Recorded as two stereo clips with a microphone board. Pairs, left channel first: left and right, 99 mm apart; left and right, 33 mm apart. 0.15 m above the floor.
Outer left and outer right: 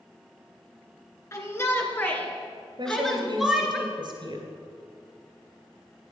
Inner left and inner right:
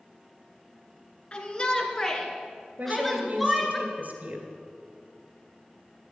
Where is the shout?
30° left (ahead or behind), 2 m; by 3.8 s 5° right (ahead or behind), 2.5 m.